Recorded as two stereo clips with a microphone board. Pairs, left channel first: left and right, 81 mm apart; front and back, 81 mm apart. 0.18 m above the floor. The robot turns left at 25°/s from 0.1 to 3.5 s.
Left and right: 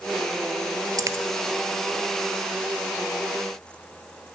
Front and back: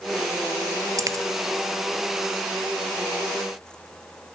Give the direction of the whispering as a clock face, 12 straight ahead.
No whispering in this recording.